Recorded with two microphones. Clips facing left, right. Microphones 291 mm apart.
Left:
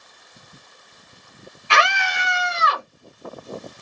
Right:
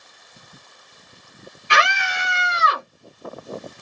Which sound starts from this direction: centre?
A scream, at 1.7 s.